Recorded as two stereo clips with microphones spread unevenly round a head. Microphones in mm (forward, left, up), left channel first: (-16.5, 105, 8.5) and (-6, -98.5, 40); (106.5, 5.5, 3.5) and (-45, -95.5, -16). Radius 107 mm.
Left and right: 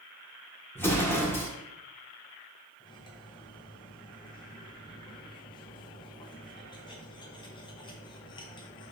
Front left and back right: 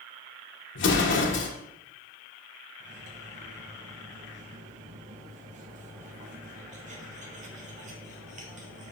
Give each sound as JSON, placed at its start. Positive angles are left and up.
{"t": 0.8, "sound": "an explosion", "azimuth_deg": 15, "distance_m": 1.2}
{"t": 2.8, "sound": "cutlery clinking", "azimuth_deg": 165, "distance_m": 1.1}